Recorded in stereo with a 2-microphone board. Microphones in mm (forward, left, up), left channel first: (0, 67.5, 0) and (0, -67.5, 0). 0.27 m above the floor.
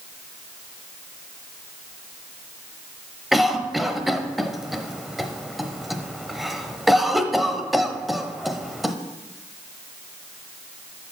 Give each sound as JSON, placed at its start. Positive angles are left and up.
{"t": 3.3, "sound": "a cough", "side_deg": 0, "distance_m": 0.9}